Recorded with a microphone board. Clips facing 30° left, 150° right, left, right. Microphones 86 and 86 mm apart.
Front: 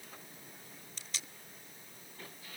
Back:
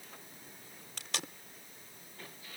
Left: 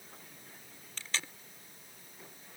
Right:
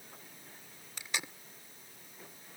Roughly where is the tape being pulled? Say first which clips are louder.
Back 9 dB, even; behind.